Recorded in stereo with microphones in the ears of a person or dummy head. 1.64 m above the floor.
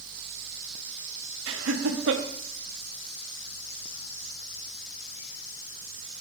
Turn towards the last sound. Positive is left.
turn(degrees=-70)  # may be behind; listen again after turning